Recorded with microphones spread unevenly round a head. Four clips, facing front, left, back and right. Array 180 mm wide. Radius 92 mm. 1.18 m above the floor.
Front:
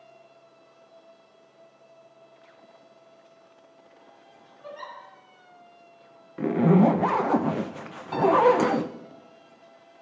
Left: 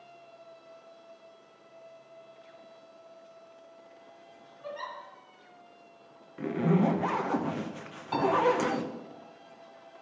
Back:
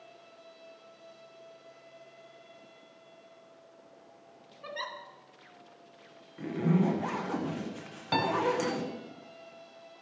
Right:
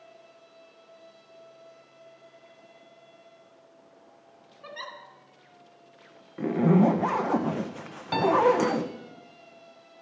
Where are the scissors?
No scissors in this recording.